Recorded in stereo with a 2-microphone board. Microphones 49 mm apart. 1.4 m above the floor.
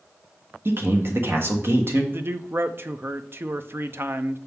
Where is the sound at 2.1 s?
50° right (ahead or behind), 0.6 m.